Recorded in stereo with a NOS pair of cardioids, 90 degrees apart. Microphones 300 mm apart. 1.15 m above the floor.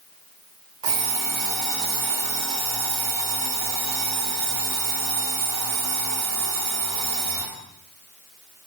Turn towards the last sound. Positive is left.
turn(degrees=-60)